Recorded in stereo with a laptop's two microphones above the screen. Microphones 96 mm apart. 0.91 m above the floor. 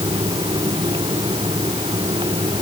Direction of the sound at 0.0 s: 60° right (ahead or behind).